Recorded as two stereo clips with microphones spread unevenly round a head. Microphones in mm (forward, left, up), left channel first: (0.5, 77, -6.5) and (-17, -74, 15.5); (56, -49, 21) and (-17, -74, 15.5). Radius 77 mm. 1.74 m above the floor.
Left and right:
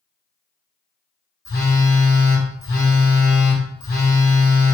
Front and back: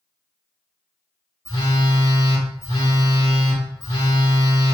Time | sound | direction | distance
1.4 | a phone buzzing | 55° left | 1.3 m